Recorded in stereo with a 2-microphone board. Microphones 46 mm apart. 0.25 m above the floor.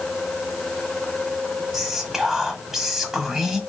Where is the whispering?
5° right (ahead or behind), 1.2 m.